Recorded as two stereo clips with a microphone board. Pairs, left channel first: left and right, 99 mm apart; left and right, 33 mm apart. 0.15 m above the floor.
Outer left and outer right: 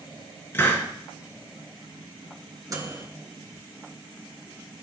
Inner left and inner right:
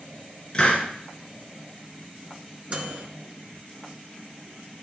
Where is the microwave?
40° right (ahead or behind), 1.6 m.